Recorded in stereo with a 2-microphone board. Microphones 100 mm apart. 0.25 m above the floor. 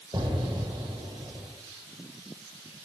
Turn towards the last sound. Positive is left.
turn(degrees=-55)  # may be behind; listen again after turning